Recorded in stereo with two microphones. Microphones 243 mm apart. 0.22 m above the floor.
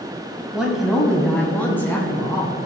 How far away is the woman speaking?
About 1.0 m.